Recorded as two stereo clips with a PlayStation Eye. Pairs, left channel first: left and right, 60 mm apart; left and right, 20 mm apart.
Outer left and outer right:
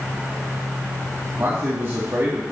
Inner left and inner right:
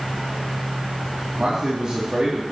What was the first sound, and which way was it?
A man speaking, 45° right (ahead or behind).